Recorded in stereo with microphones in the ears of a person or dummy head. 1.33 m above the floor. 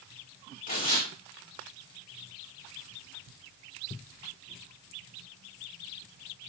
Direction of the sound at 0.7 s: 40° left (ahead or behind).